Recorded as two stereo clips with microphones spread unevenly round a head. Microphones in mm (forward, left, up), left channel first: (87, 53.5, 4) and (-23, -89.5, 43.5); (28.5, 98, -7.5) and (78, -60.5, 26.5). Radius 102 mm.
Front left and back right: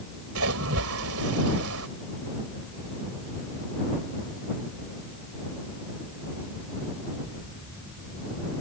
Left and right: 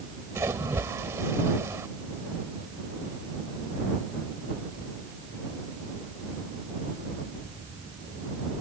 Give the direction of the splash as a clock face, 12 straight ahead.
5 o'clock.